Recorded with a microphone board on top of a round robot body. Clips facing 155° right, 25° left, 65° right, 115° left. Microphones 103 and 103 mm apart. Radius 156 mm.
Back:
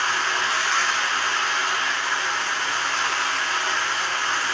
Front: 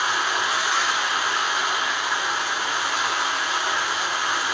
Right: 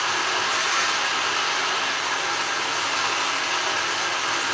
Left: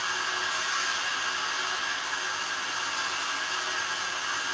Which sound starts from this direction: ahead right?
Running water, at 0.0 s.